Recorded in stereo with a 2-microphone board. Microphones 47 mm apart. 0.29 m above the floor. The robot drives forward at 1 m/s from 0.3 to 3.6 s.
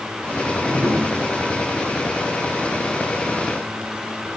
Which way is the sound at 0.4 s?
70° right (ahead or behind).